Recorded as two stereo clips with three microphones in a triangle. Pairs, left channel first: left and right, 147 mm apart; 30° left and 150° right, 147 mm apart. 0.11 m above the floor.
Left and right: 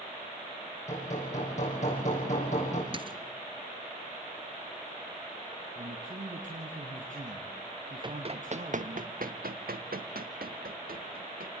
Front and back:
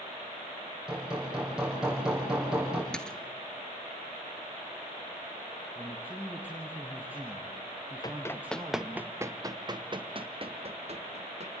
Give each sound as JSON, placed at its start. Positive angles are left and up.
{"t": 0.9, "sound": "hammering", "azimuth_deg": 125, "distance_m": 6.0}
{"t": 2.9, "sound": "a dropped coin", "azimuth_deg": -55, "distance_m": 0.9}
{"t": 5.8, "sound": "a man speaking", "azimuth_deg": -70, "distance_m": 3.0}
{"t": 8.0, "sound": "running footsteps", "azimuth_deg": -35, "distance_m": 0.9}